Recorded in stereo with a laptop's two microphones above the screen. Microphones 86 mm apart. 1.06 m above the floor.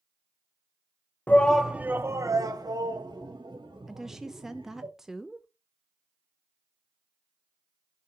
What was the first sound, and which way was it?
A shout, 20° left (ahead or behind).